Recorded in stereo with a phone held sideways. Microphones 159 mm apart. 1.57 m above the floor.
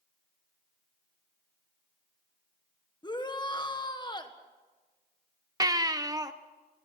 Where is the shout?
25° left (ahead or behind), 1.5 m.